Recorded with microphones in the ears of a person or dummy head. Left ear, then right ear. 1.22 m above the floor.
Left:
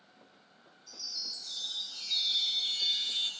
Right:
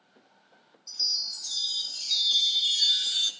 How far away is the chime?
About 2 m.